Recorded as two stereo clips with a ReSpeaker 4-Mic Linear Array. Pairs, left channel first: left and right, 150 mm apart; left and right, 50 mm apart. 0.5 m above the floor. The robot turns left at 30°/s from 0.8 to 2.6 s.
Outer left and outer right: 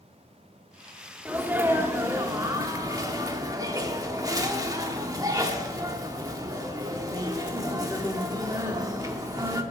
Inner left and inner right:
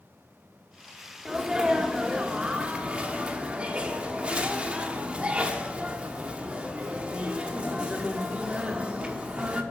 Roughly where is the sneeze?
Centre.